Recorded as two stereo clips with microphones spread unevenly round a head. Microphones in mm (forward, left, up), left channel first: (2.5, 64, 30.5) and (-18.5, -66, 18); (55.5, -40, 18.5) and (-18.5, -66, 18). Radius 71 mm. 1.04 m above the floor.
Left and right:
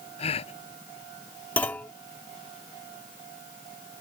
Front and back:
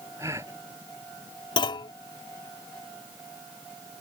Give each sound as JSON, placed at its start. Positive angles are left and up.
{"t": 0.2, "sound": "a gasp", "azimuth_deg": 125}
{"t": 1.6, "sound": "a clunk", "azimuth_deg": 0}